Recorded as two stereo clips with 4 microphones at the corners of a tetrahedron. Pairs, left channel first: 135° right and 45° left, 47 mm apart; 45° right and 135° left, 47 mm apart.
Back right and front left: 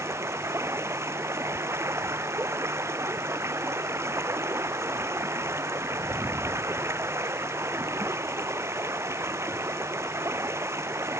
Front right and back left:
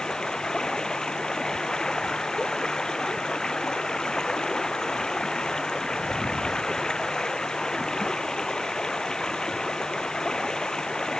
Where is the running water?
30° left.